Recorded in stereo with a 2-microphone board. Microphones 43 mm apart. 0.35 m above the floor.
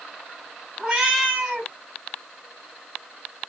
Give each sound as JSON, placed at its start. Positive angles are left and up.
{"t": 0.8, "sound": "a cat meowing", "side_deg": -20, "distance_m": 1.2}